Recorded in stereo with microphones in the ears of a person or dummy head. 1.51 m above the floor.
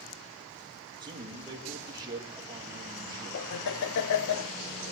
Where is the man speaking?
20° right (ahead or behind), 2 m.